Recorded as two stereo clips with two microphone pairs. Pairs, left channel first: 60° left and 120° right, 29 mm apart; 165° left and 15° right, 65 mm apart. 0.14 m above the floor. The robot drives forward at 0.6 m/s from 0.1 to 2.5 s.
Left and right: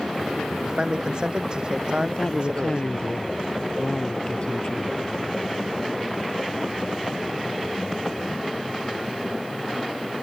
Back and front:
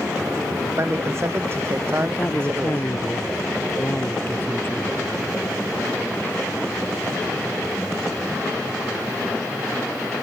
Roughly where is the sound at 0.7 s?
Ahead right.